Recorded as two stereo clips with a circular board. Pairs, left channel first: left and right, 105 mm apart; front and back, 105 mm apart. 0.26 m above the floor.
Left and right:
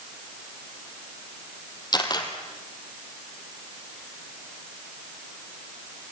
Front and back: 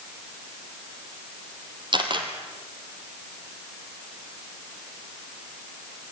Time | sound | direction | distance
1.9 | a camera shutter | 140° left | 3 m